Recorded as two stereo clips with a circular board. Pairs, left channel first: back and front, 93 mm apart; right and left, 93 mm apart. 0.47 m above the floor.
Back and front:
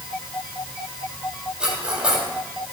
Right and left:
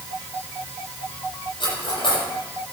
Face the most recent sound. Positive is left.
turn(degrees=-80)